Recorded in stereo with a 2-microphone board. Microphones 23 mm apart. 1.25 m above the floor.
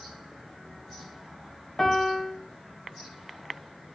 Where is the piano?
20° left (ahead or behind), 0.8 m.